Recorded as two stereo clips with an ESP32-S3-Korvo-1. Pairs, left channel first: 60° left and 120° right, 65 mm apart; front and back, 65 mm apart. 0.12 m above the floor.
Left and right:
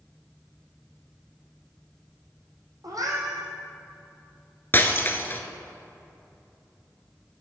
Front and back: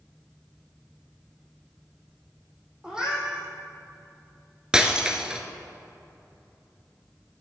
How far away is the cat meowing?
About 2 m.